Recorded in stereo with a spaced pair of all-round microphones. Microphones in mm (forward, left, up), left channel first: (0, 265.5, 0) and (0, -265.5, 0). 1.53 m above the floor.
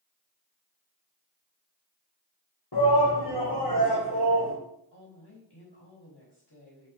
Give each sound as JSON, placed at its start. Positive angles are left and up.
{"t": 2.7, "sound": "a shout", "side_deg": 45, "distance_m": 1.5}
{"t": 4.9, "sound": "a woman speaking", "side_deg": 50, "distance_m": 3.0}